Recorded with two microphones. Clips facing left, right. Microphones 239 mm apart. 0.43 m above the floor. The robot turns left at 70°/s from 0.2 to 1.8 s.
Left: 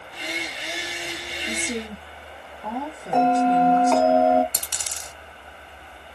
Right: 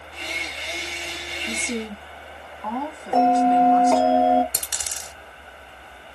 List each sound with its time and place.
1.5 s a woman speaking: 10° left (ahead or behind), 1.3 m; by 4.1 s 30° left (ahead or behind), 1.3 m
3.1 s a bell: 10° right (ahead or behind), 1.0 m
4.5 s a dropped coin: 15° right (ahead or behind), 1.0 m